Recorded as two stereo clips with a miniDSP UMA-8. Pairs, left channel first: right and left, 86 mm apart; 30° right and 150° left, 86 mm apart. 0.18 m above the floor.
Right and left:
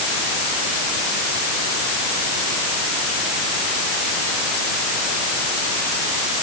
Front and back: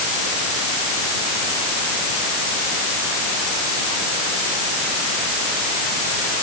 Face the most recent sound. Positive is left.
No sound to turn to.